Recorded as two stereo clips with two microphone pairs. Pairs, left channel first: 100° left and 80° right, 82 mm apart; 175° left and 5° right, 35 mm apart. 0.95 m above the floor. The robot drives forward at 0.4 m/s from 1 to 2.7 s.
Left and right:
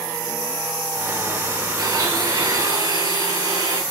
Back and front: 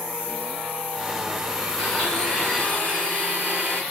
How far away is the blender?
About 4 m.